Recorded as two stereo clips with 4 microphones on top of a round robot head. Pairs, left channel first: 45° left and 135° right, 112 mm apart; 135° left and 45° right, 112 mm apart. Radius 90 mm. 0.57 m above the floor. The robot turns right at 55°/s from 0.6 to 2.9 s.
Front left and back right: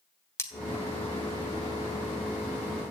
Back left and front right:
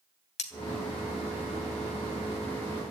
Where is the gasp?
I don't hear a gasp.